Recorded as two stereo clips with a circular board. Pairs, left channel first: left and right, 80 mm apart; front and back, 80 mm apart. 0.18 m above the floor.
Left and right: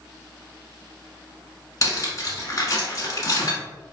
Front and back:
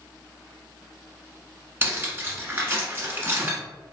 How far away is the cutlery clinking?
About 1.1 m.